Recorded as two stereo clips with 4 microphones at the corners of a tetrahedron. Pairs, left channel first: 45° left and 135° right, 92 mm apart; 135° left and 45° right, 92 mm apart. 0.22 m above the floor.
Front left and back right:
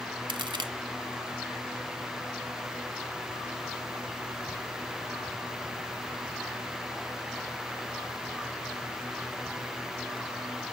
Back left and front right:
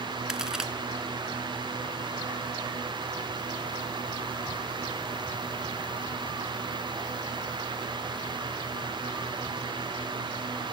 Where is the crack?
125° right, 0.9 m.